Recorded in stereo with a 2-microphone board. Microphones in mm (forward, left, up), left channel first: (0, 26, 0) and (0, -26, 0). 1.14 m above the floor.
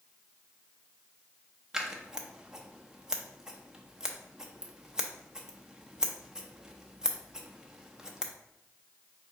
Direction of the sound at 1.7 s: 15° right (ahead or behind).